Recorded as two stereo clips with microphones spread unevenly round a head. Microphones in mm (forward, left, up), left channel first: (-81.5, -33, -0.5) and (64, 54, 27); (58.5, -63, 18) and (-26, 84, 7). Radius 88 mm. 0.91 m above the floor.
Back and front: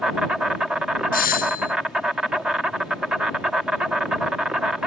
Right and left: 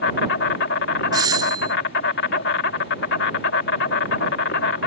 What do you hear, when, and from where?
0.0 s an insect: 55° right
1.1 s a doorbell: 175° right